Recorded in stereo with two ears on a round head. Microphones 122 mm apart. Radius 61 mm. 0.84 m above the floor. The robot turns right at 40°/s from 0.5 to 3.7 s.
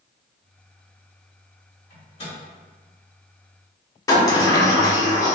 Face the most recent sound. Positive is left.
turn(degrees=25)  # may be behind; listen again after turning